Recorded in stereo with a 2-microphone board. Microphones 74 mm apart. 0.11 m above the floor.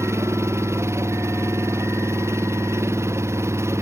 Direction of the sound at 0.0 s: 35° right (ahead or behind).